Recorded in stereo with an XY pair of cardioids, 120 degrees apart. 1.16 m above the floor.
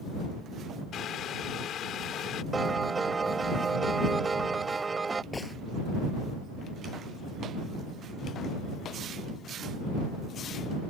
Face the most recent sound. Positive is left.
turn(degrees=15)